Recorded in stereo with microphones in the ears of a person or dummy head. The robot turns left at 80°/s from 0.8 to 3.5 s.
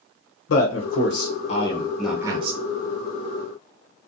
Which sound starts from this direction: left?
A man speaking, at 0.5 s.